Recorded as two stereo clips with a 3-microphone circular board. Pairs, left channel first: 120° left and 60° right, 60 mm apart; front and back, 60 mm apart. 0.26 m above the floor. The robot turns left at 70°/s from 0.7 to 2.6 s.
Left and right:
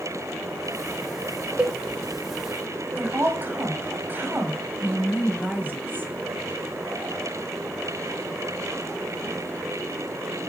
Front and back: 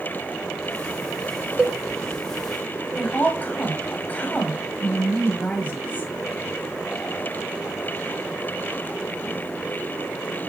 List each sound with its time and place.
1.6 s a cowbell: 120° right, 0.6 m; by 1.8 s 135° right, 0.6 m
3.0 s a woman speaking: 40° right, 1.6 m